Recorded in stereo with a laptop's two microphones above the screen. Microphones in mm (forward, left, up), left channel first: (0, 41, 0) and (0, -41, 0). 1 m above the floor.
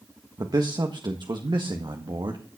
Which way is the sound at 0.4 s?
50° right (ahead or behind).